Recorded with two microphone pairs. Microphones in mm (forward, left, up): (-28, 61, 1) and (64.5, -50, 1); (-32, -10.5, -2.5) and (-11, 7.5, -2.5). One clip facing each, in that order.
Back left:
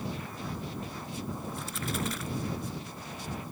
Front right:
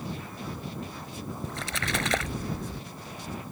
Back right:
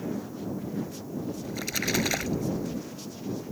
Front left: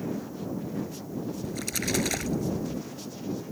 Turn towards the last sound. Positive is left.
turn(degrees=-65)